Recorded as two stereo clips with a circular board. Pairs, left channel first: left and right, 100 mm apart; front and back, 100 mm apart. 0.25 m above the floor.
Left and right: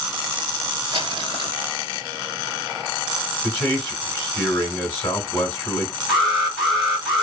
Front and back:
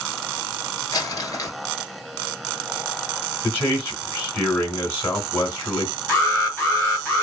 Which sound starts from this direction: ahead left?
A man speaking, at 3.4 s.